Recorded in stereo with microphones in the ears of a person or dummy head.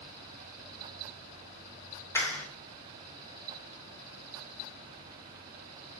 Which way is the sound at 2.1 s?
10° left (ahead or behind).